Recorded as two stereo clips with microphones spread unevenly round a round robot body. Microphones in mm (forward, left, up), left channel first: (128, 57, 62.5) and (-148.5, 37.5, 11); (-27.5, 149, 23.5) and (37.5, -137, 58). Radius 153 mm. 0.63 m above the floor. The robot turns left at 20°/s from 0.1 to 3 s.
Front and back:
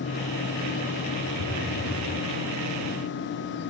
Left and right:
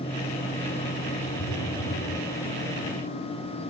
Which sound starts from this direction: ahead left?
A phone buzzing, at 1.4 s.